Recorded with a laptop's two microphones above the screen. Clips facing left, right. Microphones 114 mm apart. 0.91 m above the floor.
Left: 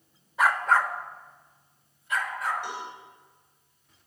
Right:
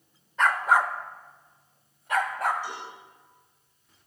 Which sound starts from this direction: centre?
A dog barking, at 0.4 s.